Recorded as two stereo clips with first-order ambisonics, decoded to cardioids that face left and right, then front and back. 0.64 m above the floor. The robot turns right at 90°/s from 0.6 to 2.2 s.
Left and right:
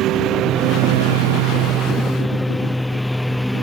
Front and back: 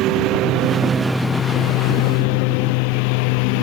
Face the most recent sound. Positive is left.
turn(degrees=0)